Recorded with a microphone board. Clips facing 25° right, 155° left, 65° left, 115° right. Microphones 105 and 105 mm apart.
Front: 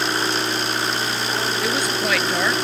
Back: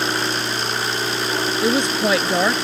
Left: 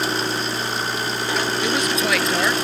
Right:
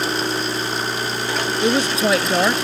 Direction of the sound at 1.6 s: 155° right.